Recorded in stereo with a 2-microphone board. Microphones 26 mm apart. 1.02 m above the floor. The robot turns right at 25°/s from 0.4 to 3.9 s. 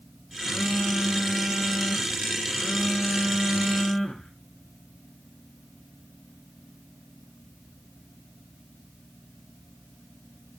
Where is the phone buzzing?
55° left, 3.5 m; by 4.3 s 145° left, 3.5 m.